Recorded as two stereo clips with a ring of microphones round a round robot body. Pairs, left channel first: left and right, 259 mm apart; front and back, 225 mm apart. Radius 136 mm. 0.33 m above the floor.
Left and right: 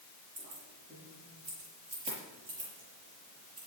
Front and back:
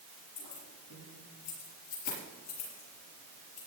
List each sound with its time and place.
0.4 s keys jangling: 20° right, 5 m